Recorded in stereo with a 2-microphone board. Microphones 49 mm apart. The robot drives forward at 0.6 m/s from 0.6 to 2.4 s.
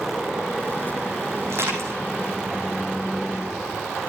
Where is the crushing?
60° right (ahead or behind), 8 m.